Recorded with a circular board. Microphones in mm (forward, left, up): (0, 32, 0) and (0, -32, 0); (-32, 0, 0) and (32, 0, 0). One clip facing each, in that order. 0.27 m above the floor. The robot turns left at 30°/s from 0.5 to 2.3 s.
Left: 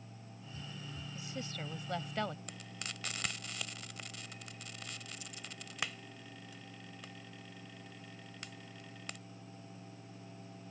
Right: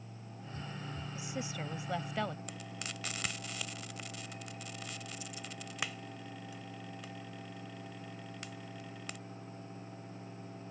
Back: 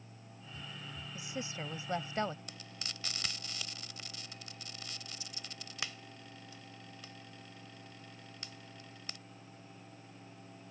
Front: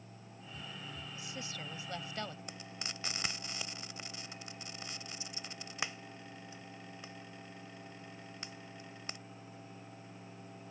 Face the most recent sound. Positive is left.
turn(degrees=-5)